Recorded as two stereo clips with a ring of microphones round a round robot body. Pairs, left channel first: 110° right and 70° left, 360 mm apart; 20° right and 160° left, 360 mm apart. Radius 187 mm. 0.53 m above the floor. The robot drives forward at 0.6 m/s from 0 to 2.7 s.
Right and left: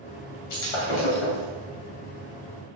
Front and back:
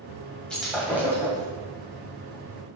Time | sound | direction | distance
0.5 | breaking glass | 110° right | 2 m